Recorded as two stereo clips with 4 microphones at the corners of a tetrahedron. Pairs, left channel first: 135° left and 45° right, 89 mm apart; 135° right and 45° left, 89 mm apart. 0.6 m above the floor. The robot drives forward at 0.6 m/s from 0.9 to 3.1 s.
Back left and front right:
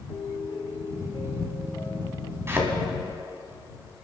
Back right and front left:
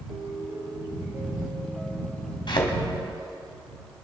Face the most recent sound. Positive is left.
turn(degrees=-115)